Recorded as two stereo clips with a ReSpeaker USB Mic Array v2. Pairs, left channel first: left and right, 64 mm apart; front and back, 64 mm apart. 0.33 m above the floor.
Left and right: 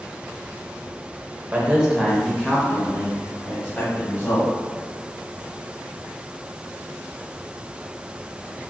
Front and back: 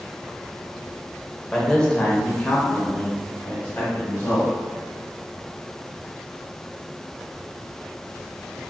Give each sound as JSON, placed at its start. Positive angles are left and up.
{"t": 1.5, "sound": "a man speaking", "azimuth_deg": -75, "distance_m": 0.9}